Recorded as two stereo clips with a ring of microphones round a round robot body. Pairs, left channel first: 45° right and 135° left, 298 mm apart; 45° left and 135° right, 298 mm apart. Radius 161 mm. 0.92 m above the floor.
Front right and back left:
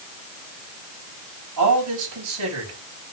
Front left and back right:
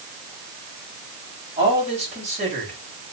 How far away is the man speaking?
About 7 m.